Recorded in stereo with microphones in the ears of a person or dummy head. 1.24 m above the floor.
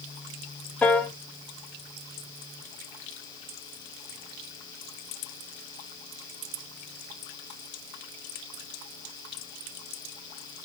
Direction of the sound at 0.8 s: 10° left (ahead or behind).